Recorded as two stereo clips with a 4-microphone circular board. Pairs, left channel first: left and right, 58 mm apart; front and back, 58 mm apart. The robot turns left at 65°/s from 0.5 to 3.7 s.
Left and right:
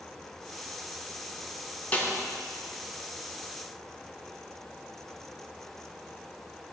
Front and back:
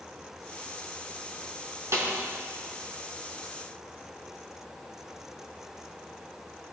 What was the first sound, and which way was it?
A snare drum, 155° left.